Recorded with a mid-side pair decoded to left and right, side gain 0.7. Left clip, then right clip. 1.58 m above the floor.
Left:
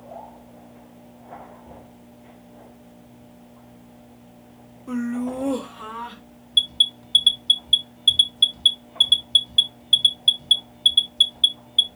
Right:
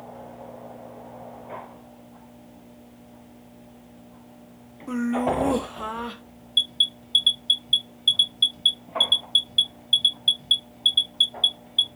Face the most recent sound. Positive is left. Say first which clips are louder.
# left 3 dB
turn(degrees=15)